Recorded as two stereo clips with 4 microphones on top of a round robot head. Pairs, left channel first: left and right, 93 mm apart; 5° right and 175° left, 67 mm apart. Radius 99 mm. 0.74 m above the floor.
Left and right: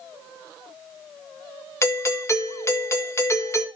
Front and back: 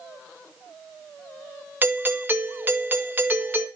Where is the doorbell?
130° left, 1.8 m.